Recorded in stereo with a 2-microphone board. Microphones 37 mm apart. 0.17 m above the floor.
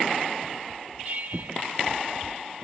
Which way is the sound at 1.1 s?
50° right (ahead or behind).